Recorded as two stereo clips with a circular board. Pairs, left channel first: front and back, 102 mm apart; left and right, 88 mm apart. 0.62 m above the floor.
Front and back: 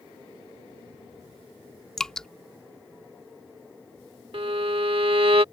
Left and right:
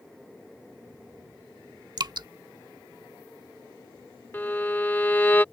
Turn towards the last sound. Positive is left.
turn(degrees=155)